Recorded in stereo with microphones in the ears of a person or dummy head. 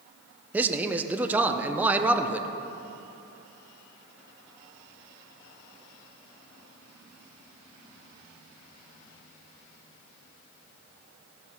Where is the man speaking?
10° right (ahead or behind), 0.5 m.